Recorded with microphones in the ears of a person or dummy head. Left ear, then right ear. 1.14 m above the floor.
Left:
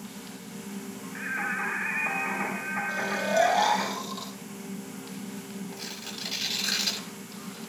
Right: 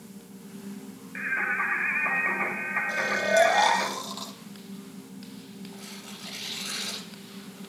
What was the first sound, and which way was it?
Singing, 20° right (ahead or behind).